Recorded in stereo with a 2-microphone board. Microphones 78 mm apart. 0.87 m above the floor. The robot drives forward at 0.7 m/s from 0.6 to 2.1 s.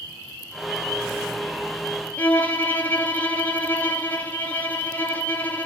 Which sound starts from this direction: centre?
A violin, at 2.2 s.